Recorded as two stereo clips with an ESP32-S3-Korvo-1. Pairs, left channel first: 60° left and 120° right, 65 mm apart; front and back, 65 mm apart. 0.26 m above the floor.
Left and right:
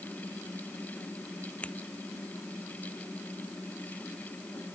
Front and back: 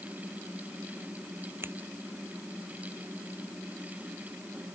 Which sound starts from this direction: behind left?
Scissors, at 1.6 s.